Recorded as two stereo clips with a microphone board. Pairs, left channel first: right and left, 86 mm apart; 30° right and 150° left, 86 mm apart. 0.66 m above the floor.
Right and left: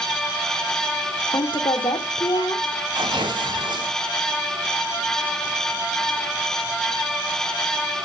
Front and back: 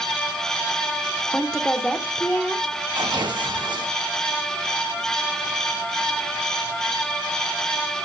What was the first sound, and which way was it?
A woman speaking, 110° right.